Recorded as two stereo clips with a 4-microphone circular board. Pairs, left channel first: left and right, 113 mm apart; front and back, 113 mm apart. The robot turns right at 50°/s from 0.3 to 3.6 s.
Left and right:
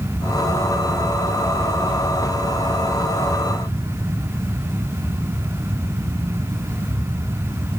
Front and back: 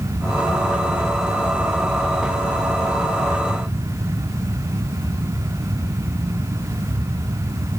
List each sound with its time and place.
Only background noise.